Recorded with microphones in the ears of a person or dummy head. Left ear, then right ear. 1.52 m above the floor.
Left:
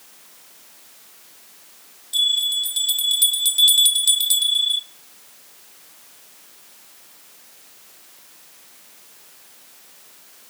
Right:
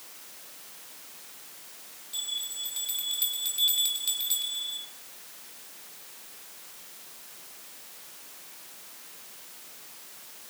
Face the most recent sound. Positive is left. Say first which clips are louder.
# left 15 dB
turn(degrees=30)  # may be behind; listen again after turning